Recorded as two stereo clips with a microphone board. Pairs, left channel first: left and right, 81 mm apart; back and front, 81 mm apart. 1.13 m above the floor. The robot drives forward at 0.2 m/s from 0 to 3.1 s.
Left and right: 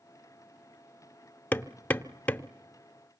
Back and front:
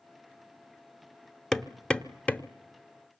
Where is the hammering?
105° left, 0.7 m; by 2.5 s 135° left, 0.8 m.